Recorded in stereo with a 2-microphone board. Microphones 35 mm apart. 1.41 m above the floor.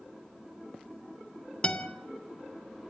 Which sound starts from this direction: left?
A guitar, at 1.6 s.